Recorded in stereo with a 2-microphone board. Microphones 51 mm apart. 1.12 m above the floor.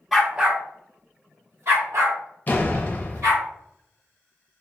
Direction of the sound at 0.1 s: 5° right (ahead or behind).